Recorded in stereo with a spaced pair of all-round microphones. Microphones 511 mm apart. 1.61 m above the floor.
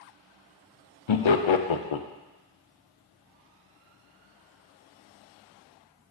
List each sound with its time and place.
1.1 s laughter: 65° left (ahead or behind), 0.5 m